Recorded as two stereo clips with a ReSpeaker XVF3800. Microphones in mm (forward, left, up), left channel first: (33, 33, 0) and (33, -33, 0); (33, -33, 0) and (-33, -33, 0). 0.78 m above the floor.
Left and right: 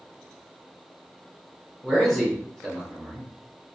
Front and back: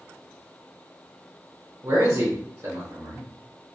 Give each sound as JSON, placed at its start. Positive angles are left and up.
{"t": 1.8, "sound": "a man speaking", "azimuth_deg": 175, "distance_m": 0.9}